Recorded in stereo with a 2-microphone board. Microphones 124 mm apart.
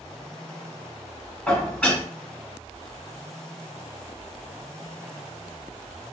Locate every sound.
1.5 s dishes clattering: 10° left (ahead or behind), 1.5 m